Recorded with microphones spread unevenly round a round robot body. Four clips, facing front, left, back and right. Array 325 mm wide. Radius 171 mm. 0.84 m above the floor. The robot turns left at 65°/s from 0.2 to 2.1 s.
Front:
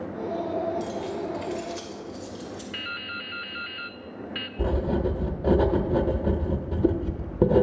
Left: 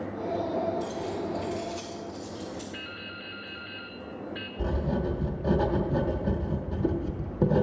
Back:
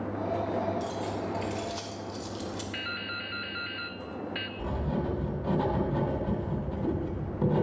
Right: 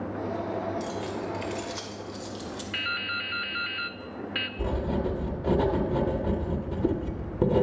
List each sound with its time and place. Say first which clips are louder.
0.8 s keys jangling: even, front 2 dB; 50° right, 2 m; by 2.6 s 135° right, 2 m
2.7 s dripping: right 7 dB, front 1 dB; 80° right, 0.7 m
4.6 s writing: right 1 dB, front 7 dB; 5° right, 0.9 m